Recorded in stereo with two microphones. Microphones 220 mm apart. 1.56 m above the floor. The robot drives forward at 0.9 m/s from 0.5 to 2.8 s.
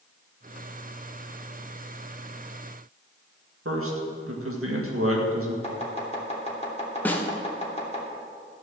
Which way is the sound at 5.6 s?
30° left (ahead or behind).